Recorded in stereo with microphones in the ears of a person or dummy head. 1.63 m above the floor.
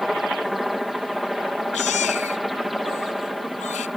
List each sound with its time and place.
0.0 s a helicopter: centre (ahead or behind)
1.7 s a baby crying: 40° left (ahead or behind)